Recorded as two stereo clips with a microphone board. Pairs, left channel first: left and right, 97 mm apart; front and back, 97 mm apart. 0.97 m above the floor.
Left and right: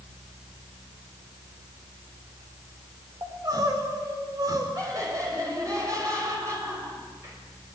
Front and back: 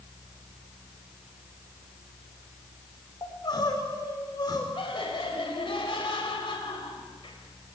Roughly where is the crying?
Ahead right.